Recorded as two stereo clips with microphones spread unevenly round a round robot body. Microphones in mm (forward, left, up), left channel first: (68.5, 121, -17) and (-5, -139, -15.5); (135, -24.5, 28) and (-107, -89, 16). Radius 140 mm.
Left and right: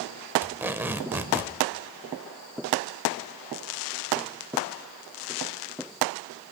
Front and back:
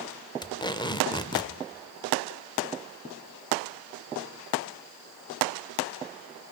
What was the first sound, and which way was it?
Tape being pulled, 35° right.